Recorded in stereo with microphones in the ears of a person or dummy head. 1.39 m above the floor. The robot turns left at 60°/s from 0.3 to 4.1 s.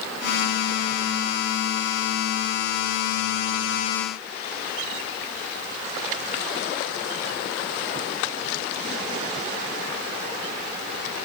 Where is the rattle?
No rattle in this recording.